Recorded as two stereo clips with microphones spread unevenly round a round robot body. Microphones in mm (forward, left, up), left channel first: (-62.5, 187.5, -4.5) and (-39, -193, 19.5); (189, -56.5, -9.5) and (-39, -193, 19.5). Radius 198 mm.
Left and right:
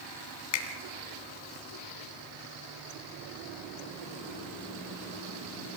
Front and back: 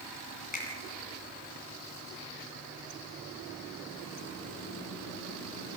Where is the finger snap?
100° left, 2.5 m.